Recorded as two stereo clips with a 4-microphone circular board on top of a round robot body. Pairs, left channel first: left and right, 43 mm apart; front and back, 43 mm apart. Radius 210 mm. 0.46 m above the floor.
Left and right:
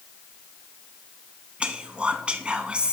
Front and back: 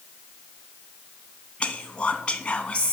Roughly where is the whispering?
Ahead right.